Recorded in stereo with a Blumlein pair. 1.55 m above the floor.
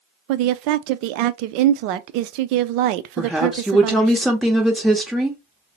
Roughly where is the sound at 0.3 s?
Ahead right.